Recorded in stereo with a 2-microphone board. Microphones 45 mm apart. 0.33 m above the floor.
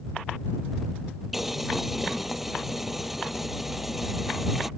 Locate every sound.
1.3 s boiling: 5° right (ahead or behind)